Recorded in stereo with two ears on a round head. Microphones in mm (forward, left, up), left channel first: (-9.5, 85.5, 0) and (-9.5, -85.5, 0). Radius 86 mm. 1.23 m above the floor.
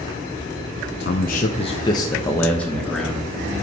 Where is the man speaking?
60° left (ahead or behind), 0.7 m; by 3.3 s centre (ahead or behind), 1.6 m.